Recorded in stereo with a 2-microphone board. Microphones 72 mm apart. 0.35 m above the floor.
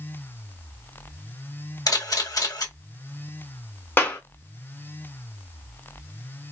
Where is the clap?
30° left (ahead or behind), 1.3 m.